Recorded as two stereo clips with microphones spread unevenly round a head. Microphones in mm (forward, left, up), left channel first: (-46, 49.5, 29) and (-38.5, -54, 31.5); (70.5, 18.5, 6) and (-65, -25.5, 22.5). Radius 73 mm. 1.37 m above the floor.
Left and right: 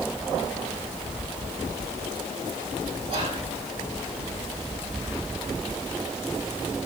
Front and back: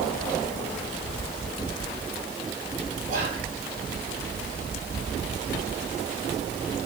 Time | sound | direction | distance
3.1 | whispering | 120° right | 4.5 m